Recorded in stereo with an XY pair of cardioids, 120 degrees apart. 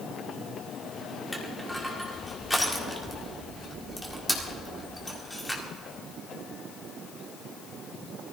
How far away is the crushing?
About 2.5 m.